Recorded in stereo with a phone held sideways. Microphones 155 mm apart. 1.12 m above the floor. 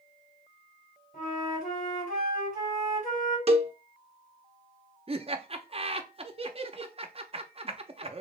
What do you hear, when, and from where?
1.1 s a flute: 65° left (ahead or behind), 3 m
3.5 s a cowbell: 40° right (ahead or behind), 0.6 m
5.1 s laughter: 40° right (ahead or behind), 0.9 m